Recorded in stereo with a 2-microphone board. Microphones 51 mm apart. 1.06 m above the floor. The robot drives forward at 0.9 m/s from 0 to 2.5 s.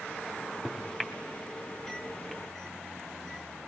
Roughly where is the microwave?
Centre.